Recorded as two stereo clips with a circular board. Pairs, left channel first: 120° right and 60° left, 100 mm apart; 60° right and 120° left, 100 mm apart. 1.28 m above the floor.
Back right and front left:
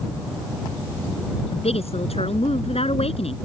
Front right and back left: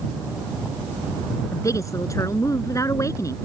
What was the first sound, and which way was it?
A woman speaking, 115° right.